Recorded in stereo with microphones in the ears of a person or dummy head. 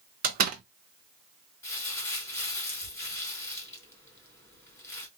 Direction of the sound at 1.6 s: 10° left (ahead or behind).